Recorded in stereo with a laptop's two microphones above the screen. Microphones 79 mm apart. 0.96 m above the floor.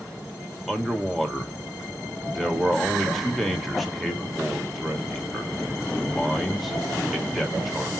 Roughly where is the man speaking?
Centre.